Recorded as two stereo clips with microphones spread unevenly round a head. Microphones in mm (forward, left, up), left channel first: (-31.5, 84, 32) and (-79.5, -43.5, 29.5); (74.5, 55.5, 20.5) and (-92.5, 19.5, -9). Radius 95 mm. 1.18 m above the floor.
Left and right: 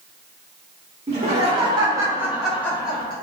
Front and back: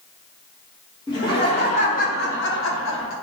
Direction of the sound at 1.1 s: 60° right.